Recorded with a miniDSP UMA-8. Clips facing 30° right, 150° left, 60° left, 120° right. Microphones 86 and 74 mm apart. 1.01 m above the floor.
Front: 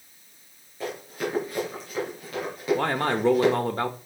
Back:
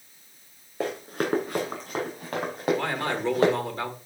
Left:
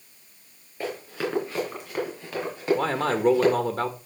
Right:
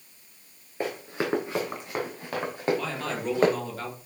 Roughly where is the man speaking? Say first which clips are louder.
Front 3 dB, left 7 dB; ahead.